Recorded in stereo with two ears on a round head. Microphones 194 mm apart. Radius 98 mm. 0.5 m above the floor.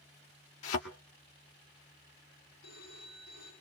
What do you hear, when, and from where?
0.6 s a thud: 75° left (ahead or behind), 1.8 m
2.6 s a phone ringing: 60° left (ahead or behind), 9.5 m